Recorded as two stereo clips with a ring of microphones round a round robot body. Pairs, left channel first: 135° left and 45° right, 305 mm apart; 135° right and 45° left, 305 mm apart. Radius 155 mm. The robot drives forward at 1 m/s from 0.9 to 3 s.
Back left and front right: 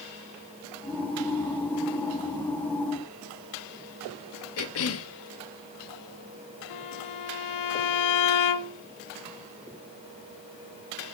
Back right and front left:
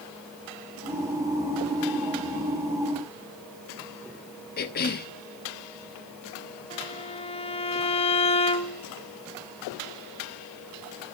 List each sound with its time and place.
4.6 s a cough: 170° left, 1.1 m
6.7 s a violin: 155° left, 0.8 m